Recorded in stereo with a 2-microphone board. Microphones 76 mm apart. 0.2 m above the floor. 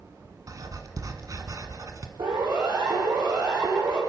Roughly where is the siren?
Right.